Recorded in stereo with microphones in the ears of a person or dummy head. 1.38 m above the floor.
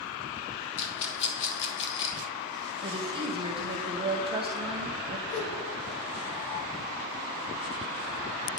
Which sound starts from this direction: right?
A woman speaking, at 2.8 s.